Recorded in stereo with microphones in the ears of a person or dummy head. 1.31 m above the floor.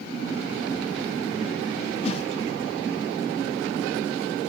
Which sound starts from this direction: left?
A whoosh, at 2.0 s.